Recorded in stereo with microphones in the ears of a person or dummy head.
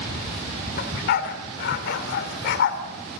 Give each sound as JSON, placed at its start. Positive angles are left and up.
{"t": 0.8, "sound": "a dog barking", "side_deg": 60, "distance_m": 2.0}